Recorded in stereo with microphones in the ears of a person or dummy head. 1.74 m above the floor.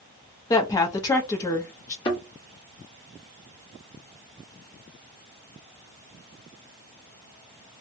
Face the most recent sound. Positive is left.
turn(degrees=15)  # may be behind; listen again after turning